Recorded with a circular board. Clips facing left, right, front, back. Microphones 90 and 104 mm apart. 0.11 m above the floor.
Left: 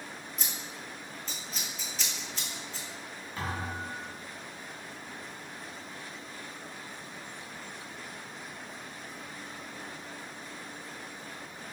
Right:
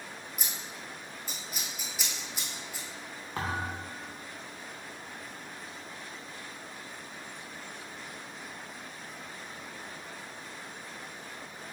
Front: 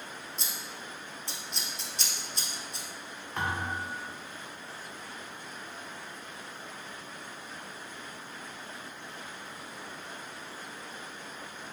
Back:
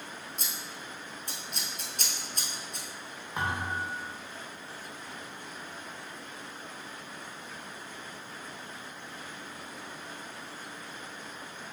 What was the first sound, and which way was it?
Scissors, 165° right.